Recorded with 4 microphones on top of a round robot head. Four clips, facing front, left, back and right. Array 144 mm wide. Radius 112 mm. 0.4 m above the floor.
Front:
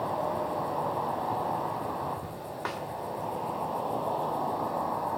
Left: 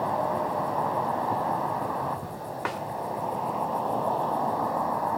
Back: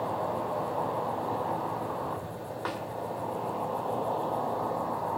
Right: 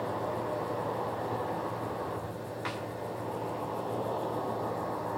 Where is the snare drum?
90° left, 2 m.